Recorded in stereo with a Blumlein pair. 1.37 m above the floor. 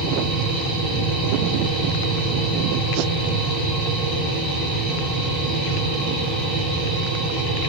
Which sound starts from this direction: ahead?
A machine running, at 0.0 s.